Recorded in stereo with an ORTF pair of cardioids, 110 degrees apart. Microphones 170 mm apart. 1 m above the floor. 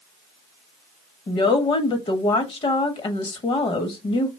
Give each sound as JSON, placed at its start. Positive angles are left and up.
{"t": 1.3, "sound": "a woman speaking", "azimuth_deg": 35, "distance_m": 1.2}